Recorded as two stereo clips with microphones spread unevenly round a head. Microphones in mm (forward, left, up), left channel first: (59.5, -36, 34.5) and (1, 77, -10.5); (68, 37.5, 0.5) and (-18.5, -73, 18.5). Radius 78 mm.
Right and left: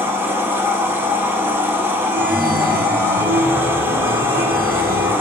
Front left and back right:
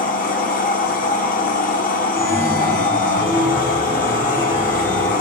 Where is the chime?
125° left, 3.5 m.